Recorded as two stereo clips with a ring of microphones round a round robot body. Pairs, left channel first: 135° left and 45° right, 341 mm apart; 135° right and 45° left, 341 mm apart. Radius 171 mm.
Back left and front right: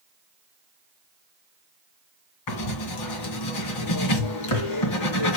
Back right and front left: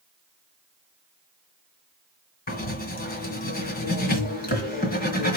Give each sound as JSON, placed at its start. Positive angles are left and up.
{"t": 2.5, "sound": "writing", "azimuth_deg": 160, "distance_m": 2.0}